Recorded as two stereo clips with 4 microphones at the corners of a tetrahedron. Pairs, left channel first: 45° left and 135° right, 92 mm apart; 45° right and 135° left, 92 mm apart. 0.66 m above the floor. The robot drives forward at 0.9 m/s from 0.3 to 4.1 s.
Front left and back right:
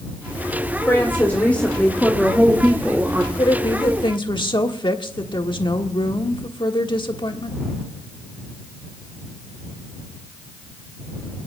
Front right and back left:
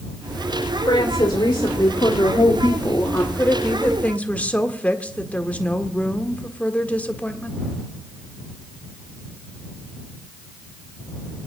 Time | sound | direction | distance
0.9 | a woman speaking | 20° right | 2.5 m
3.4 | a woman speaking | 20° left | 1.9 m